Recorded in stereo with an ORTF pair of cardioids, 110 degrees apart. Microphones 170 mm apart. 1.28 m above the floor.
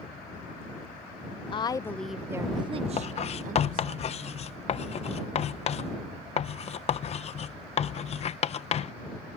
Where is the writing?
40° left.